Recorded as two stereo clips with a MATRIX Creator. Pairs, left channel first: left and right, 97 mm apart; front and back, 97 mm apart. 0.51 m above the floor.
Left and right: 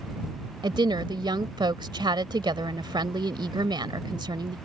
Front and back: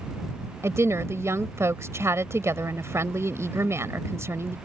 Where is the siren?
I don't hear a siren.